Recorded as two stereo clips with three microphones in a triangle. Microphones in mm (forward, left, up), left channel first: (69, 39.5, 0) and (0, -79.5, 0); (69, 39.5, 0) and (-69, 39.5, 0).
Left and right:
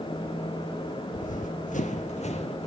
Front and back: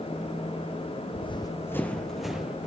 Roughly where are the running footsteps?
Ahead left.